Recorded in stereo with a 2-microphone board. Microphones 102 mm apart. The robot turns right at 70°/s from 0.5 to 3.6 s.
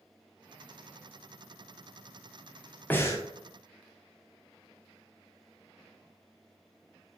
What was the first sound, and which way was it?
Breathing, 20° left (ahead or behind).